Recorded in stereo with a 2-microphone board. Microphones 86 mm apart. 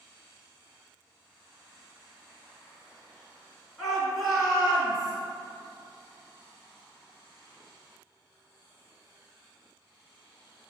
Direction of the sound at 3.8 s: Centre (ahead or behind).